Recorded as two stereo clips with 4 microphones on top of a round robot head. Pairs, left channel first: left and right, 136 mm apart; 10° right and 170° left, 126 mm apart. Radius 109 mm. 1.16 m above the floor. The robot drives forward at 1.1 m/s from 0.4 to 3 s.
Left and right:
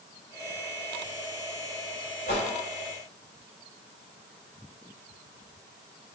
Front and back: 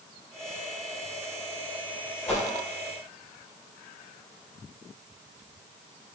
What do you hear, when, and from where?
2.3 s a whoosh: 65° left, 1.8 m; by 2.4 s 75° left, 1.7 m